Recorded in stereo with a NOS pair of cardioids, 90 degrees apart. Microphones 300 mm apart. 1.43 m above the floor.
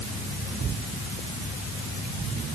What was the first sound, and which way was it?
Only background noise.